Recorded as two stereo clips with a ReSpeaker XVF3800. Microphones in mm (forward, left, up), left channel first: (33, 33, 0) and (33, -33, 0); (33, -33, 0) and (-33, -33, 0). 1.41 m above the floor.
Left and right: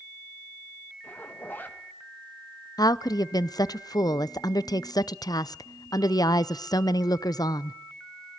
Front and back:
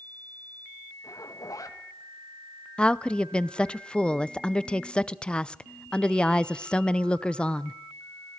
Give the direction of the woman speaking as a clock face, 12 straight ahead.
10 o'clock.